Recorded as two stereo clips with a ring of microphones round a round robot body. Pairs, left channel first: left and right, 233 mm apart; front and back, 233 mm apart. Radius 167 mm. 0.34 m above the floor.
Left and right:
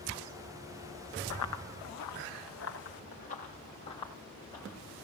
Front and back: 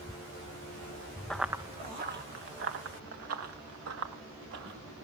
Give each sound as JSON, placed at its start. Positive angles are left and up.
{"t": 1.3, "sound": "running footsteps", "azimuth_deg": 85, "distance_m": 1.4}